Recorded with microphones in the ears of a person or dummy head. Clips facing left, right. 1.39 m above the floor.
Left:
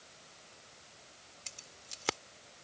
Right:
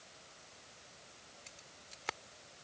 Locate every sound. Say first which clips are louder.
1.5 s keys jangling: left 1 dB; 45° left (ahead or behind)